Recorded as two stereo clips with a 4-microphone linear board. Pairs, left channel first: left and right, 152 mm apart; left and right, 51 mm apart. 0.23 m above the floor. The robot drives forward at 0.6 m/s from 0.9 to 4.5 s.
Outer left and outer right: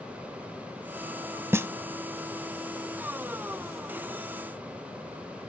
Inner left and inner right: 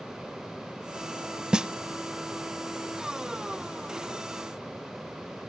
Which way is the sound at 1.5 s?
15° right (ahead or behind).